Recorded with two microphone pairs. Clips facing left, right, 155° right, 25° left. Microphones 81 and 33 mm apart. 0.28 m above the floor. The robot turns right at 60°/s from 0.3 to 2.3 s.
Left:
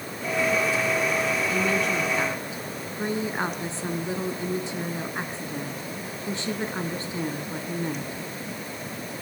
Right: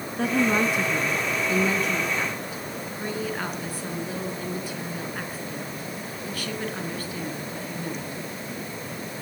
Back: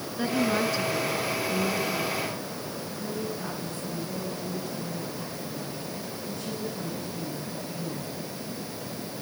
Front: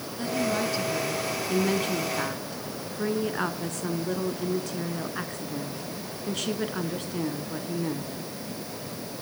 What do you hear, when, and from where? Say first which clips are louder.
0.2 s a woman speaking: right 2 dB, back 2 dB; 95° right, 3.5 m; by 8.1 s 25° left, 3.5 m